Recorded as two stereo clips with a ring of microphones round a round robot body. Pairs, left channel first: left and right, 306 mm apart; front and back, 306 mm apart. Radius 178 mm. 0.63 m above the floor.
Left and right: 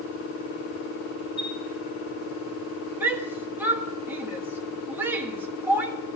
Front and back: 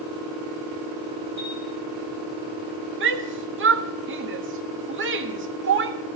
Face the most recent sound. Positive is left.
turn(degrees=-170)